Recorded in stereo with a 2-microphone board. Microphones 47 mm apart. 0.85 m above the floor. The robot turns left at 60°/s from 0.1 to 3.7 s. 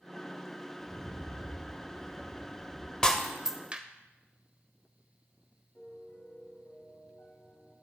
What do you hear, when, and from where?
0.8 s a rattle: 70° right, 4 m; by 2.9 s 160° left, 4 m
3.0 s breaking glass: 15° left (ahead or behind), 1.1 m; by 3.8 s 25° right (ahead or behind), 1.1 m
5.8 s a piano: 60° left (ahead or behind), 4 m